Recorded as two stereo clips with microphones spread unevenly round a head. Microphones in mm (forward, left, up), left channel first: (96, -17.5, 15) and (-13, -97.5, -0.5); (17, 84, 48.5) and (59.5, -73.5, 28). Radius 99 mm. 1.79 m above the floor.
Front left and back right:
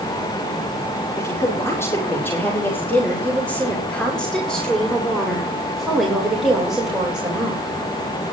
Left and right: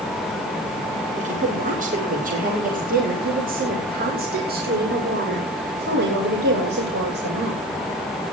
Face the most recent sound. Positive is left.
turn(degrees=-65)